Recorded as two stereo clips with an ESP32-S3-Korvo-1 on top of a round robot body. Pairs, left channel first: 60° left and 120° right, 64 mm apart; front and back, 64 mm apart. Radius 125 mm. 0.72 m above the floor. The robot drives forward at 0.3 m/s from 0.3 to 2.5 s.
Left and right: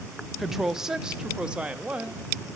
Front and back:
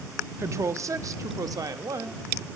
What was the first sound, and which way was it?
A woman speaking, 155° left.